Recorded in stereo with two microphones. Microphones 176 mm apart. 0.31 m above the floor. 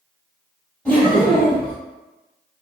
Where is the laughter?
5° left (ahead or behind), 1.8 m.